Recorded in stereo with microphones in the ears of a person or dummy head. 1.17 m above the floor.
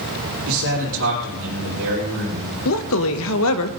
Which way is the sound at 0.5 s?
75° right (ahead or behind).